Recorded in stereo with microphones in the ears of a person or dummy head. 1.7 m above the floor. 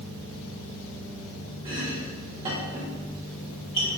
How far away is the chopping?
About 1.3 m.